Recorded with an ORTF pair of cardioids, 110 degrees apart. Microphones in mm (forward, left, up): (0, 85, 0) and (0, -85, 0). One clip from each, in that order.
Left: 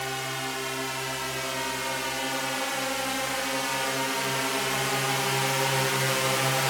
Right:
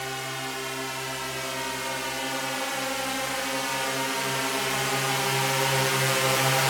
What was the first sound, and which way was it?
A drone, 5° left.